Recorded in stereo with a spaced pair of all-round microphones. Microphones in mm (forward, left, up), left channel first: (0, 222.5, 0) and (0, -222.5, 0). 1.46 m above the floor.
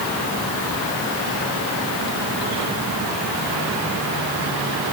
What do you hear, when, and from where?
Only background noise.